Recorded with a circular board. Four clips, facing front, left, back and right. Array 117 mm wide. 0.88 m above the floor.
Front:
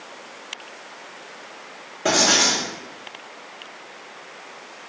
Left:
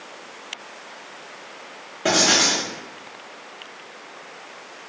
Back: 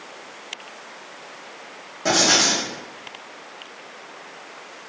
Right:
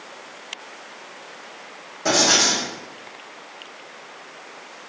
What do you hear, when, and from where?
2.0 s writing: 60° left, 0.9 m